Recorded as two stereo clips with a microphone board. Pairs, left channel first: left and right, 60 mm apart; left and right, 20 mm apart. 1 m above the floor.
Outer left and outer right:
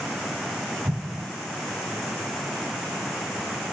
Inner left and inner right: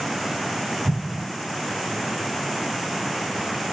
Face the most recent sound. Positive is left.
turn(degrees=-70)  # may be behind; listen again after turning